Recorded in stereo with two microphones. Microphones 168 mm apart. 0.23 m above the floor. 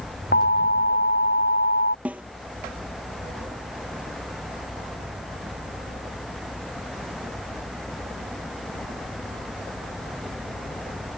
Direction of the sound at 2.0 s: 10° right (ahead or behind).